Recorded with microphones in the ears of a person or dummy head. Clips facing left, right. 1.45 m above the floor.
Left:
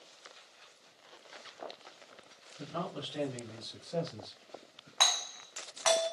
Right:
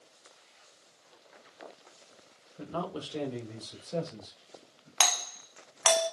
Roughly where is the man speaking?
Right.